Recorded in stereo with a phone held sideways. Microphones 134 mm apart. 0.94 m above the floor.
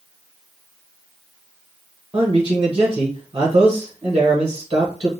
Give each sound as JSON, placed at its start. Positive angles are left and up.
{"t": 2.1, "sound": "a man speaking", "side_deg": -40, "distance_m": 0.8}